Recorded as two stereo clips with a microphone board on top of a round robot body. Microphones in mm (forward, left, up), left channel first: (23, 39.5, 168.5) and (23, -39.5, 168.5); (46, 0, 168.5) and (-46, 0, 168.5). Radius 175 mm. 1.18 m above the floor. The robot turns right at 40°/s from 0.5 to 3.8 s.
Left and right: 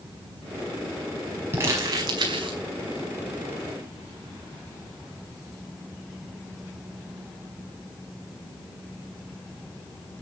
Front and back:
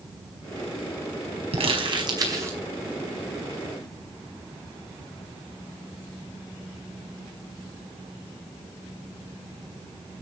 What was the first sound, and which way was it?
Crumpling, 155° right.